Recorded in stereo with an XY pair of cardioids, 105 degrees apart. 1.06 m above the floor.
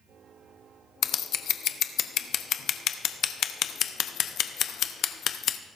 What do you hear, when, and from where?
1.0 s scissors: 70° left, 0.7 m